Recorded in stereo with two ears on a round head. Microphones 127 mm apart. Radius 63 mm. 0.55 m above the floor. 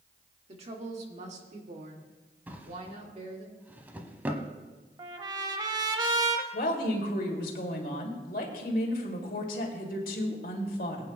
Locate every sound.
0.5 s a woman speaking: 40° right (ahead or behind), 1.5 m; by 3.5 s 45° right (ahead or behind), 2.5 m
2.5 s a drawer: 15° right (ahead or behind), 0.9 m
5.0 s a trumpet: 30° right (ahead or behind), 0.9 m
6.5 s a woman speaking: 65° left (ahead or behind), 2 m